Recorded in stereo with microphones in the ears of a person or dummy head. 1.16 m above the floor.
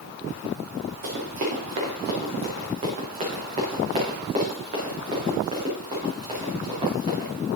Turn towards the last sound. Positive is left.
turn(degrees=-30)  # may be behind; listen again after turning